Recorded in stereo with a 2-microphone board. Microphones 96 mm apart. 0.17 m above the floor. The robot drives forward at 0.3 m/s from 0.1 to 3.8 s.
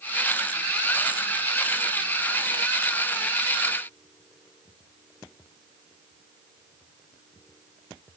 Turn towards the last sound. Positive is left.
No sound to turn to.